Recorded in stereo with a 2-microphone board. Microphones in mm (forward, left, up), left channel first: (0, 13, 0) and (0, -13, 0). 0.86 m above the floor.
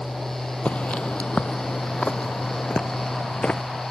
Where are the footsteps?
60° left (ahead or behind).